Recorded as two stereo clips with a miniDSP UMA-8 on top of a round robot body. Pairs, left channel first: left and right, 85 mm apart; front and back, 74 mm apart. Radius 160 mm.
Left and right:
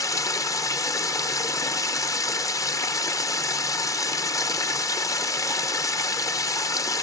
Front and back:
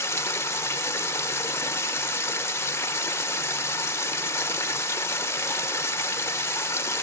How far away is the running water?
About 0.8 m.